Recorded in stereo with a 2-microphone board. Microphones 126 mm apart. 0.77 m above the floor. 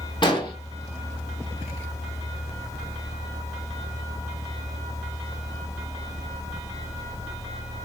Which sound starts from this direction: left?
An explosion, at 0.2 s.